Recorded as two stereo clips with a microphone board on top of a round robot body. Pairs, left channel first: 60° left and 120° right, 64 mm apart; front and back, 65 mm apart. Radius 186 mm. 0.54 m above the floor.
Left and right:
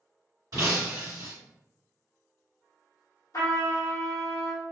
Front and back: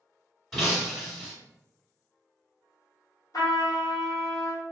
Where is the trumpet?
30° left, 1.3 m.